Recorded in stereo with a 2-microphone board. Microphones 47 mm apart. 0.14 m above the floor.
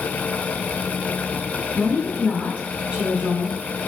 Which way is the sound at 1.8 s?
20° right (ahead or behind).